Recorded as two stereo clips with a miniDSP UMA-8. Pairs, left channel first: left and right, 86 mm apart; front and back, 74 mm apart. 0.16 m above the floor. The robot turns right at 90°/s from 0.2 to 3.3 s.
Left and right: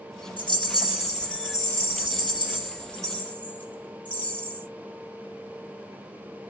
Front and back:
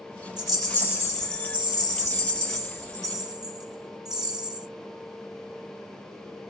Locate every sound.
0.4 s a rattle: 105° right, 2.5 m; by 4.7 s 160° left, 2.5 m